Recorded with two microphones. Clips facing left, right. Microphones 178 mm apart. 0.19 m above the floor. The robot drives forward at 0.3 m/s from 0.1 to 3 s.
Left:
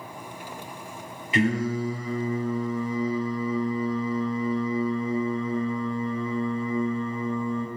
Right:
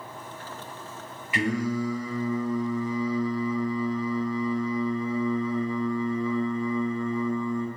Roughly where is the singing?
Left.